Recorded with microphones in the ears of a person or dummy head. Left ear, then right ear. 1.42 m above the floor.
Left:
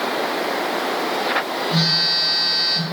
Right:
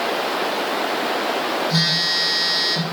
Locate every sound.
1.7 s a phone buzzing: 80° right, 5.5 m